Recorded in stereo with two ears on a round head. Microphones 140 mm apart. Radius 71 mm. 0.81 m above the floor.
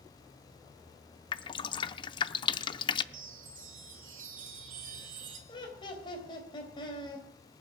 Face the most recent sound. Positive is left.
turn(degrees=30)  # may be behind; listen again after turning